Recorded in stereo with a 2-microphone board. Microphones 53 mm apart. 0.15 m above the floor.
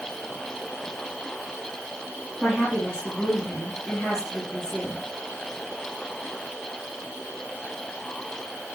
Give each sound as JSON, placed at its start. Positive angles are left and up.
{"t": 2.4, "sound": "a woman speaking", "side_deg": 10, "distance_m": 4.5}